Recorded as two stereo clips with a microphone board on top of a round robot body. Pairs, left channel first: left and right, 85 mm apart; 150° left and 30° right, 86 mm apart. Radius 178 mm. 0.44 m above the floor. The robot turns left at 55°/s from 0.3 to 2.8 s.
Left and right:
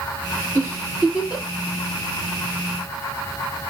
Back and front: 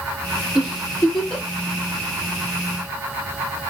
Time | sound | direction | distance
0.6 | a giggle | 105° right | 1.4 m